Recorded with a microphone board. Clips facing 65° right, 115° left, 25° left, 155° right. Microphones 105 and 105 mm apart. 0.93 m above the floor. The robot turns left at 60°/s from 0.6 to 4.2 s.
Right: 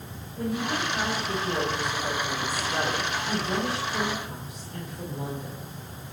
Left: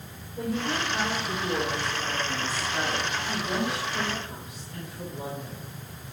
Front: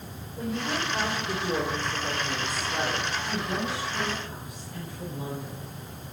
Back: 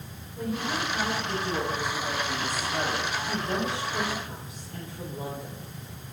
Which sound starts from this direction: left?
A woman speaking, at 0.4 s.